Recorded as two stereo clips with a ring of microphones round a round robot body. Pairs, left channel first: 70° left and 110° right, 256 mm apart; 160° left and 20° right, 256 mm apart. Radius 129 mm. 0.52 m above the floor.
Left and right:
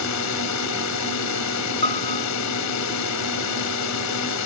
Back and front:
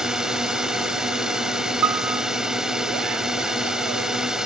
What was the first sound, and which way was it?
A drone, 65° left.